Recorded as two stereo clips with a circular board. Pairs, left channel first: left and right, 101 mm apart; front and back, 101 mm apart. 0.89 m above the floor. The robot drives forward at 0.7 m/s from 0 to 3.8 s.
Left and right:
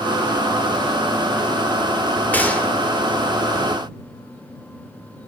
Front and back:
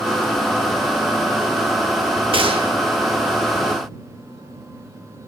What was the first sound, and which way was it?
A gunshot, 160° left.